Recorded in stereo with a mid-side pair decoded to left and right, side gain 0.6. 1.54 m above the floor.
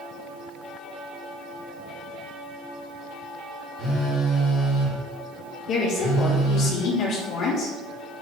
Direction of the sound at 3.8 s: 65° left.